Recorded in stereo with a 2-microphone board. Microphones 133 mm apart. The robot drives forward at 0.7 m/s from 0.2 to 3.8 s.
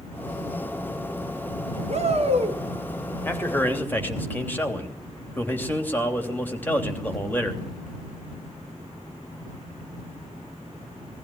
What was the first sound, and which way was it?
A shout, 60° right (ahead or behind).